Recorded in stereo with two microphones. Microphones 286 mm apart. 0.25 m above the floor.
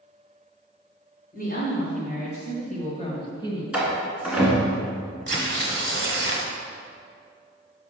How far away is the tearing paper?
About 1.2 m.